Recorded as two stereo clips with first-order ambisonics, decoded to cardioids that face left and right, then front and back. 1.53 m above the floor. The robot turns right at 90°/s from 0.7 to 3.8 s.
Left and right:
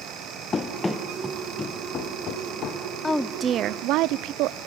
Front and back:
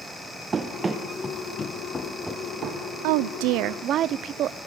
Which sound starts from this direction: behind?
A woman speaking, at 3.0 s.